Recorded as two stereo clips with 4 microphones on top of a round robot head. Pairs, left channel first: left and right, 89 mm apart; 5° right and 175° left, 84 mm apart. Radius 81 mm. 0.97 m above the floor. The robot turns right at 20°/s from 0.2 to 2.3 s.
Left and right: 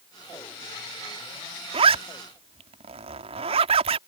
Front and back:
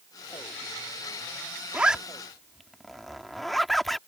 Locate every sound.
1.7 s a zipper: 105° right; by 4.0 s 95° right